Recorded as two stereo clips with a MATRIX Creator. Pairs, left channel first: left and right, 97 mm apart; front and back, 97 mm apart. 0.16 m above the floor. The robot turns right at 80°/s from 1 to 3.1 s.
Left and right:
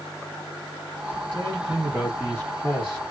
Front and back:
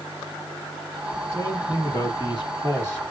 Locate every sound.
1.3 s a man speaking: 75° right, 1.4 m; by 3.0 s 60° left, 1.4 m